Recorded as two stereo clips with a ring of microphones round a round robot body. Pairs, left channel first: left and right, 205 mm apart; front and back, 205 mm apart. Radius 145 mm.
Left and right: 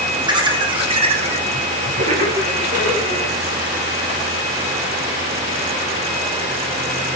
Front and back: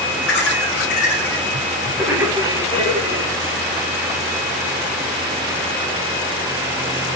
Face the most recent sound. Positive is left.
turn(degrees=-150)